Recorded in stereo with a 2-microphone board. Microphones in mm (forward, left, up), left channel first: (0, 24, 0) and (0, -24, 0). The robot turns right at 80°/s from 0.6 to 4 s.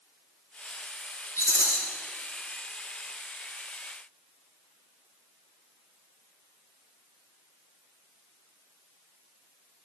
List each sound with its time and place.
1.4 s a rattle: 75° left, 3 m; by 1.8 s 105° left, 3 m